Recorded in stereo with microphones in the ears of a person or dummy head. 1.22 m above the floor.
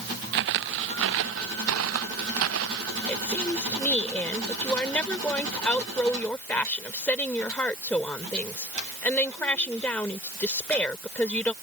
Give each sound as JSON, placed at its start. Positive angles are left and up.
{"t": 0.3, "sound": "footsteps", "side_deg": -60}
{"t": 3.1, "sound": "a woman speaking", "side_deg": 5}